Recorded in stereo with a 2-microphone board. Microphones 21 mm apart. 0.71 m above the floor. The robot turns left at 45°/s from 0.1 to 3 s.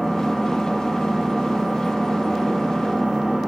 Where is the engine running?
20° left, 1.5 m; by 3.5 s 110° right, 1.5 m.